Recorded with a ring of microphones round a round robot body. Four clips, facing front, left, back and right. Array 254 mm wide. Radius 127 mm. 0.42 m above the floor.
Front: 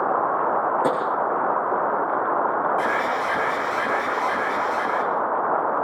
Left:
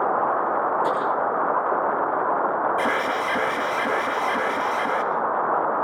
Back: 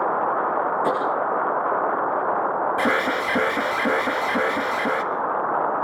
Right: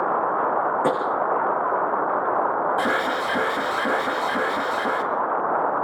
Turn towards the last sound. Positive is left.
turn(degrees=-165)